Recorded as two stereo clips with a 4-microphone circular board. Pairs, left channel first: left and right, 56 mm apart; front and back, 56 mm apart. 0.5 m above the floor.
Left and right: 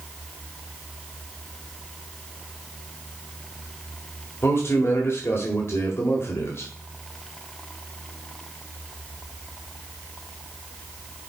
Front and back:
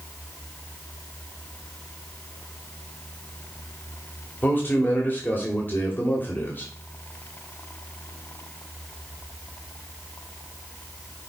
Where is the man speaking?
50° left, 1.9 m.